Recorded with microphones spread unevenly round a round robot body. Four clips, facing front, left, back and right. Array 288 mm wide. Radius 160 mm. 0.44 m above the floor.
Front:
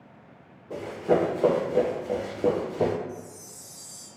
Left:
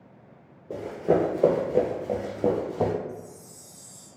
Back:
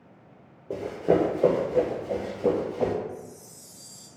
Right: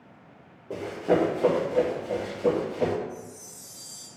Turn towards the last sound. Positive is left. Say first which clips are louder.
# left 1 dB, even
turn(degrees=40)